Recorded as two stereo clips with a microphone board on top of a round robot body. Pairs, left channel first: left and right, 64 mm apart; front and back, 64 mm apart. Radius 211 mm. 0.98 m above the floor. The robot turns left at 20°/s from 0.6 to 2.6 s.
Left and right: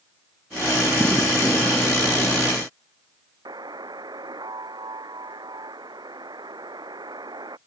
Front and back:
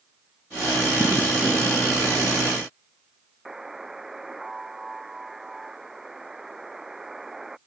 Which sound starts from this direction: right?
A buzzer, at 3.5 s.